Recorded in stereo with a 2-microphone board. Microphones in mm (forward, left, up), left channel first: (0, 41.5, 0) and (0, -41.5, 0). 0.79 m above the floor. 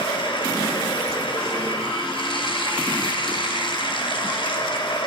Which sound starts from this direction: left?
Running water, at 0.0 s.